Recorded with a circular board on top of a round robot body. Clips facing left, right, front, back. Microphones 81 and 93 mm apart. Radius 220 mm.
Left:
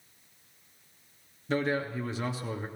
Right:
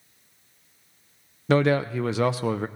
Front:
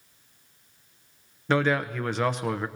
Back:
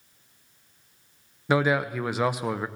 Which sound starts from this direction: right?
A man speaking, at 1.5 s.